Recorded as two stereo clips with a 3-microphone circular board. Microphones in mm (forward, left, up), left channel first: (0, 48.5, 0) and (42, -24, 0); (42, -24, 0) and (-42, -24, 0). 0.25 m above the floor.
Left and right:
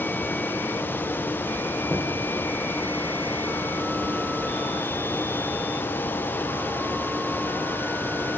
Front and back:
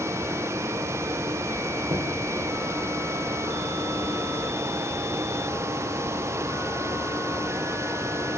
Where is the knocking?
165° right, 3 m.